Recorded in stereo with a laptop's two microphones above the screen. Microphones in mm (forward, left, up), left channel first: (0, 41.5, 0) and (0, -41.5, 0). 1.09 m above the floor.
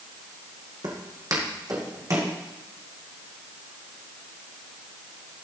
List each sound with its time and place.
0.8 s footsteps: 55° right (ahead or behind), 2 m; by 2.3 s 40° right (ahead or behind), 2.5 m